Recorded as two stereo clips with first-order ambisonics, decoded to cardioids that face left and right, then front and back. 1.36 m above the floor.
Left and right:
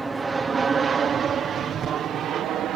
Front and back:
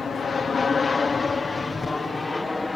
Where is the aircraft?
30° right; by 2.8 s 75° right.